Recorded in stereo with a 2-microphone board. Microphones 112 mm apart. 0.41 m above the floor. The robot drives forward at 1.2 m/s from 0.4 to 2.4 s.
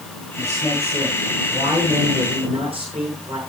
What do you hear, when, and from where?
0.4 s a man speaking: 75° right (ahead or behind), 6.5 m; by 3.4 s 60° right (ahead or behind), 7 m